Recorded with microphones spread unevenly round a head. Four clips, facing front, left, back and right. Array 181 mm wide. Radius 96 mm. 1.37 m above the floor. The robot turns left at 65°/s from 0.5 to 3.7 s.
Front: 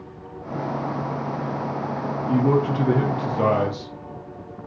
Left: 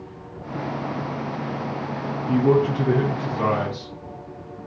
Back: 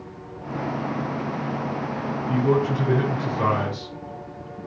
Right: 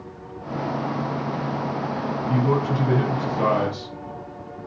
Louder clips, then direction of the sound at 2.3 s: Left 5 dB, front 1 dB; 65° left.